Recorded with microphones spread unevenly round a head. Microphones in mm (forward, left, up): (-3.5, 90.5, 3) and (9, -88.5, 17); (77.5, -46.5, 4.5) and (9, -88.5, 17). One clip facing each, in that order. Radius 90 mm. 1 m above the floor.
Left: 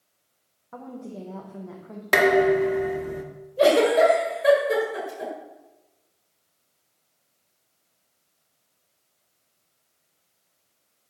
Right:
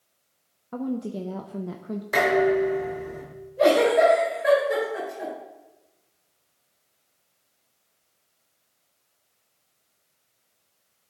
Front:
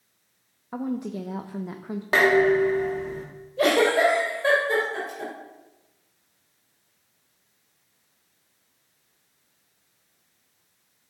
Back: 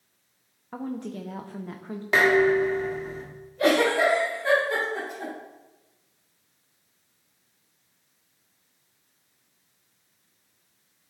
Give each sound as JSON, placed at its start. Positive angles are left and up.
{"t": 0.7, "sound": "a woman speaking", "azimuth_deg": -40, "distance_m": 0.5}
{"t": 2.1, "sound": "dishes clattering", "azimuth_deg": 105, "distance_m": 1.1}
{"t": 3.6, "sound": "a giggle", "azimuth_deg": 50, "distance_m": 2.5}